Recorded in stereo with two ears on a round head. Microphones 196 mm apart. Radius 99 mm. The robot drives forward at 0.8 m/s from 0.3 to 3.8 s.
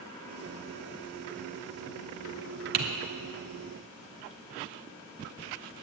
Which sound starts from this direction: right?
Typing on a keyboard, at 2.7 s.